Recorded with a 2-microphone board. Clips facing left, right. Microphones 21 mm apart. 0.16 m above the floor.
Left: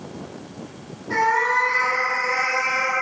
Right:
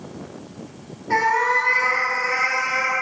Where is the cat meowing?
50° right (ahead or behind), 0.6 m.